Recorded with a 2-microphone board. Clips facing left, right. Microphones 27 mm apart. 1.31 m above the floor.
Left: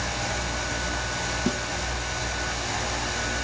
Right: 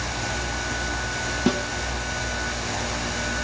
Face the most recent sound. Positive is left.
turn(degrees=-30)  # may be behind; listen again after turning